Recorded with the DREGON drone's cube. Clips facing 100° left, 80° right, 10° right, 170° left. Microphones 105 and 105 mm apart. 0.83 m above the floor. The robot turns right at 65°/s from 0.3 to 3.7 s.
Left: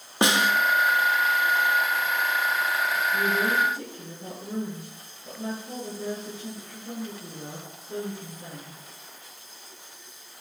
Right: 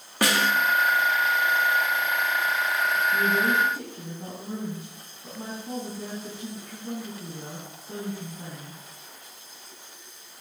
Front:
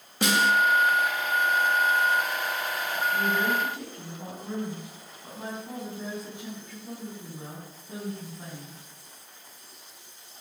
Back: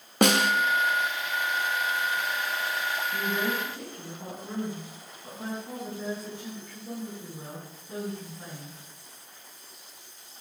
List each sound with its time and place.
0.2 s a snare drum: 165° left, 1.3 m; by 0.5 s 175° left, 1.3 m
3.1 s a woman speaking: 125° right, 7 m; by 8.8 s 90° right, 7 m